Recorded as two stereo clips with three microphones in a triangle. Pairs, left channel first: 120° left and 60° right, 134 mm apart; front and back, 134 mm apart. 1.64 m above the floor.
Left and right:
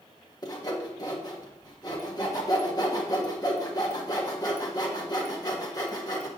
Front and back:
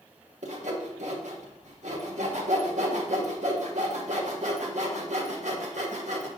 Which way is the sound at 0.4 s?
Straight behind.